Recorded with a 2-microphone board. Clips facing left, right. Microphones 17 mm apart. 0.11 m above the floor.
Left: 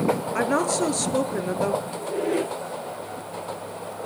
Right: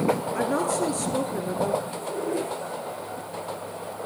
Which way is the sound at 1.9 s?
85° left.